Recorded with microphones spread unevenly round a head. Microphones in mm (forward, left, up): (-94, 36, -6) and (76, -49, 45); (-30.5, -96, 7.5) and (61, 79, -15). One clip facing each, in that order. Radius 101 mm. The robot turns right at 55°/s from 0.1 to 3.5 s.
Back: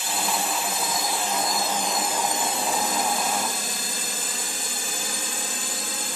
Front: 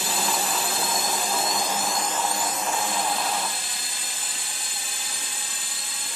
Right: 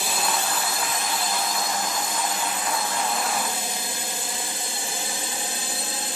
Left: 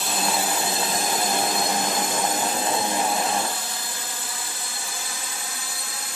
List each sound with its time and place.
0.0 s a drone: 35° right; by 6.2 s straight behind